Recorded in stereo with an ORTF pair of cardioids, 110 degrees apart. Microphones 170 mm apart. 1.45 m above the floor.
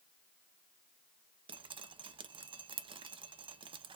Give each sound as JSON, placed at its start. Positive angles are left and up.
{"t": 1.5, "sound": "dripping", "azimuth_deg": -30, "distance_m": 0.6}